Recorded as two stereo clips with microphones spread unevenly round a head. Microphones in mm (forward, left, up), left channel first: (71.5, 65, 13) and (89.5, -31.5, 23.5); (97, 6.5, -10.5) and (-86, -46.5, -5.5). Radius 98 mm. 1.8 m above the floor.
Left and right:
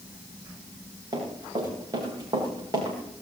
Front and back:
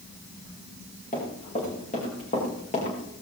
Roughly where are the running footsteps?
Ahead right.